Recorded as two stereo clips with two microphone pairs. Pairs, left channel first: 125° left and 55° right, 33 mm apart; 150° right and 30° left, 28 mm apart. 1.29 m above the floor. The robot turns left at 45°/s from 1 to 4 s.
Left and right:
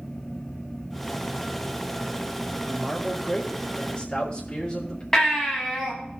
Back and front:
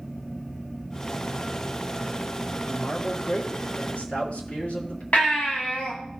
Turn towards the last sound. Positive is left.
turn(degrees=-160)